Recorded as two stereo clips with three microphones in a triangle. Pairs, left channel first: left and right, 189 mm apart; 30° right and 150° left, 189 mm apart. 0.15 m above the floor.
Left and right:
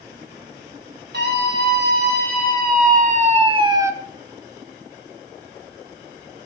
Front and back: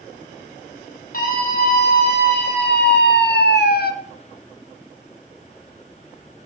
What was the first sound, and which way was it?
A scream, 70° right.